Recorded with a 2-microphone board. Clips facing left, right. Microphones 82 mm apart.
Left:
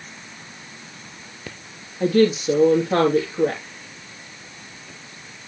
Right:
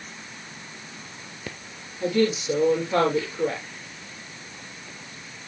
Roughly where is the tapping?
No tapping in this recording.